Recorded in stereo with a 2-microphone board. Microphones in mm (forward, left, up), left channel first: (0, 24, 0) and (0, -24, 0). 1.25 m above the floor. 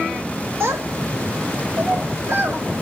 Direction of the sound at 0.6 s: 60° right (ahead or behind).